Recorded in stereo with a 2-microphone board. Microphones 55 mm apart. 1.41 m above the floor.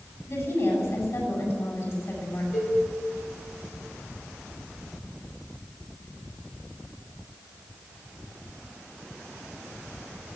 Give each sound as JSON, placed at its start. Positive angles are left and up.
{"t": 0.3, "sound": "a woman speaking", "side_deg": 60, "distance_m": 8.0}
{"t": 2.5, "sound": "a cowbell", "side_deg": 65, "distance_m": 8.0}